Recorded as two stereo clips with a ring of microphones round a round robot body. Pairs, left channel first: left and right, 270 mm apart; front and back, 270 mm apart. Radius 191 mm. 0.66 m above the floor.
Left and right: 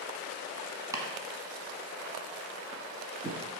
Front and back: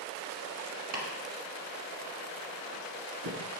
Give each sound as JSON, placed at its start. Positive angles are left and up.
{"t": 0.9, "sound": "chopping", "azimuth_deg": -170, "distance_m": 1.6}